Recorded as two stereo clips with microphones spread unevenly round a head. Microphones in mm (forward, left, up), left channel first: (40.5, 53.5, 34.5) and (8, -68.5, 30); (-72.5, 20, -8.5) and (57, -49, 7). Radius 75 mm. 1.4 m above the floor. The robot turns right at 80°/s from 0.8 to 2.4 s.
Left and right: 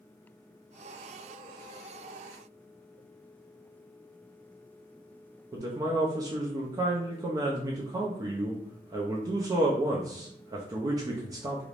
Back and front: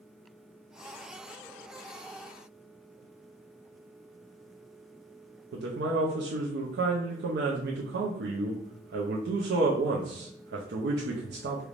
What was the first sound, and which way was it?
A man speaking, 40° right.